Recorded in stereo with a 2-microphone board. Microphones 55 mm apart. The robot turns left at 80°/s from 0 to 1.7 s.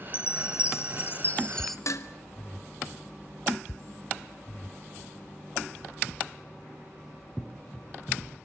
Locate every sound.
0.1 s a chime: 130° left, 1.6 m; by 1.8 s 5° left, 1.6 m
1.9 s dishes clattering: 65° left (ahead or behind), 1.6 m